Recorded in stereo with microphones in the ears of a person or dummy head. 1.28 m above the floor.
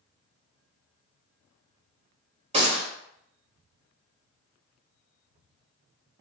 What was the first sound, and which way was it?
A gunshot, 30° right (ahead or behind).